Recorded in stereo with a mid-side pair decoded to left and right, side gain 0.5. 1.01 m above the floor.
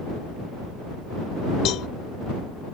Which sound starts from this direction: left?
A cowbell, at 1.6 s.